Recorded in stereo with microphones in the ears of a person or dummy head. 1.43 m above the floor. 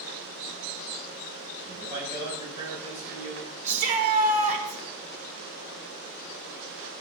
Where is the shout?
45° right (ahead or behind), 5.5 m.